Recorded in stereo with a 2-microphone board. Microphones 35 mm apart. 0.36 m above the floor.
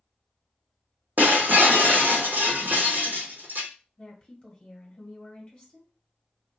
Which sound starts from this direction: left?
A woman speaking, at 4.0 s.